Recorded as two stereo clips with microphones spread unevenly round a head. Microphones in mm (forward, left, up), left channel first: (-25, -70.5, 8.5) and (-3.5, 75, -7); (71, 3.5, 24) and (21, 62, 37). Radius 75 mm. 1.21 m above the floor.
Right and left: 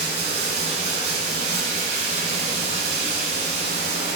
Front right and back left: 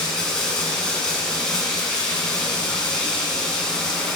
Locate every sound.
0.0 s running water: 40° left, 1.9 m